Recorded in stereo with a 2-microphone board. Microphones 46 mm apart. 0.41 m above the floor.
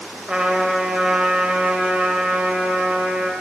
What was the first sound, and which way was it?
A trumpet, 20° right (ahead or behind).